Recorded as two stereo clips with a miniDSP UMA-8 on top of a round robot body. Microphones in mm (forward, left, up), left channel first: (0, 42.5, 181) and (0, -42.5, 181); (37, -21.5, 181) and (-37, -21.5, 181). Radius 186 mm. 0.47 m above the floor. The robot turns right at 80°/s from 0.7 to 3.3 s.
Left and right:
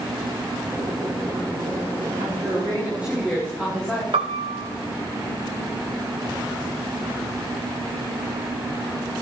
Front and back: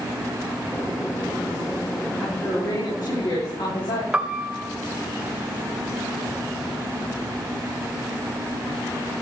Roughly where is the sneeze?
I don't hear a sneeze.